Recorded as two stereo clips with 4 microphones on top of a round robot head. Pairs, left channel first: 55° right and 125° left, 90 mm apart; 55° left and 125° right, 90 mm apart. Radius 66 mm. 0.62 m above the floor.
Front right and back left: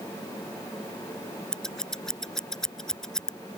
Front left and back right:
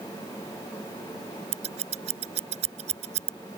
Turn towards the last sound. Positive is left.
turn(degrees=-140)